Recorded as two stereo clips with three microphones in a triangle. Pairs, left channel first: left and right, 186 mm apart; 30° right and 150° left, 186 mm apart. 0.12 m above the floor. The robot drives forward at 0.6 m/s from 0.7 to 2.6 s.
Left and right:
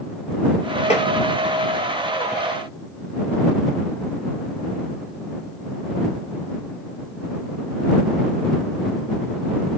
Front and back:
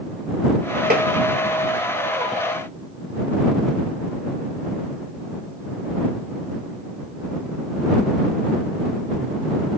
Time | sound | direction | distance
0.9 | tapping | 135° left | 0.7 m